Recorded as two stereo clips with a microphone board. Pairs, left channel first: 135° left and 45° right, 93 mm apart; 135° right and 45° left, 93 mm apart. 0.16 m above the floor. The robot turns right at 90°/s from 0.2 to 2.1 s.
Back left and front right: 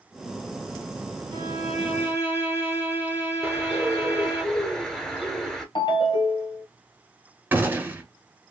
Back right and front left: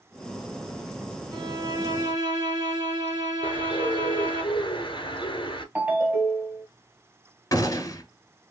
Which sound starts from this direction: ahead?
A violin, at 1.3 s.